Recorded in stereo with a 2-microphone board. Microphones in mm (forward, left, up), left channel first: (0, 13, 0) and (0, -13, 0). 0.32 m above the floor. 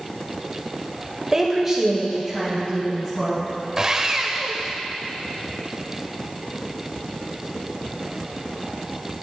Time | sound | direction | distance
1.3 | a woman speaking | 20° right (ahead or behind) | 1.0 m
3.8 | sawing | 25° right (ahead or behind) | 0.6 m